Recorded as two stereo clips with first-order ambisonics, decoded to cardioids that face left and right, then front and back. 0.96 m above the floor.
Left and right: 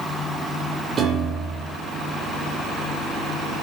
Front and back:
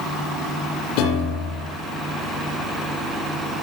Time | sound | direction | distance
1.0 | a piano | 25° right | 9 m